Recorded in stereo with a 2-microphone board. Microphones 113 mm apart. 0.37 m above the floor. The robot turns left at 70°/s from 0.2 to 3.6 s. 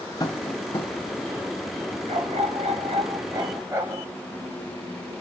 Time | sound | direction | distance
0.2 | tapping | 35° left (ahead or behind) | 2 m
2.1 | a dog barking | 50° right | 3 m